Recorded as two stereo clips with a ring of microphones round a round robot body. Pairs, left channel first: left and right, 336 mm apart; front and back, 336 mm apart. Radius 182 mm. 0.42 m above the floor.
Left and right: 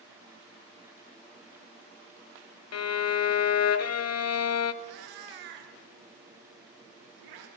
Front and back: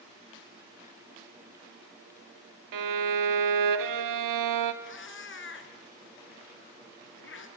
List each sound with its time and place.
2.7 s a violin: 135° left, 1.0 m
4.8 s a cat meowing: 55° right, 2.5 m